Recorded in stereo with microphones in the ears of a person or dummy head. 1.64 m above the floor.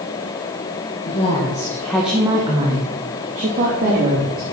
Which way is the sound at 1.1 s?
30° left (ahead or behind).